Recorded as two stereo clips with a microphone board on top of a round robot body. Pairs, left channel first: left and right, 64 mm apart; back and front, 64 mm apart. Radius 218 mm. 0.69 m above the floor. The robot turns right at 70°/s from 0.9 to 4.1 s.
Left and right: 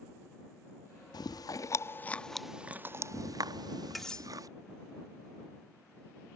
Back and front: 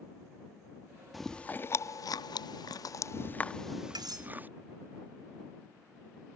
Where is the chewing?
90° left; by 4.5 s 65° right.